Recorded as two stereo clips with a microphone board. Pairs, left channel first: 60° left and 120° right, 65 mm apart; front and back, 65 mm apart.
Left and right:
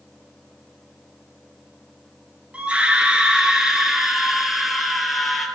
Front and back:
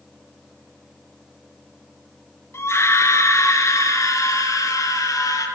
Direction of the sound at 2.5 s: 50° right.